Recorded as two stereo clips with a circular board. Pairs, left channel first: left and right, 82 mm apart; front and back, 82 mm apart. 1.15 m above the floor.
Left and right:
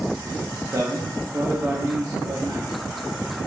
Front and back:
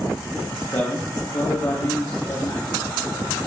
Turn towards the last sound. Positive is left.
turn(degrees=-40)